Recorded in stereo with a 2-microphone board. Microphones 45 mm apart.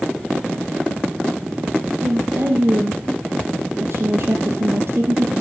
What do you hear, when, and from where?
2.0 s a woman speaking: 55° right (ahead or behind), 3.5 m